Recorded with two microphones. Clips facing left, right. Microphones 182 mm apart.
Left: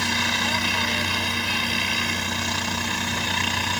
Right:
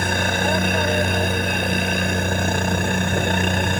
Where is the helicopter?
55° right (ahead or behind).